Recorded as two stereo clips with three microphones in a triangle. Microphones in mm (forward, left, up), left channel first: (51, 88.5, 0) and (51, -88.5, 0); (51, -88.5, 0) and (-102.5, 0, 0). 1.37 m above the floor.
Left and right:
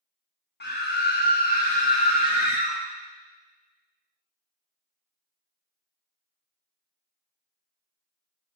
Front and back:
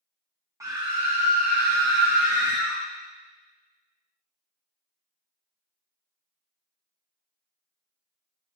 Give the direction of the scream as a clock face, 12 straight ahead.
9 o'clock.